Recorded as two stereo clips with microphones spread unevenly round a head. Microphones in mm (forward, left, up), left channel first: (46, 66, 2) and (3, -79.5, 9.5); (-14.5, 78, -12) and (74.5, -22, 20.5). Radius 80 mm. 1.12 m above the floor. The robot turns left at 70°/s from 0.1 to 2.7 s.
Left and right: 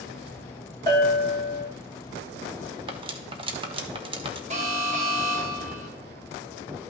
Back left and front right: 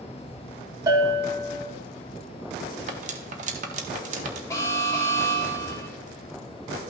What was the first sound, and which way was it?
A bell, 10° left.